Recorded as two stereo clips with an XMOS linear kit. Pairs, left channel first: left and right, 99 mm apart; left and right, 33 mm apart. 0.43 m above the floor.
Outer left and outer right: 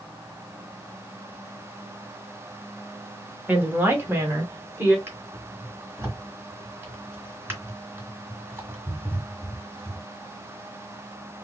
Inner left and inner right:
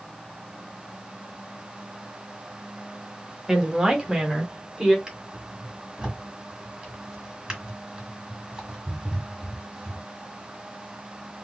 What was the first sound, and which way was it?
A woman speaking, 20° right (ahead or behind).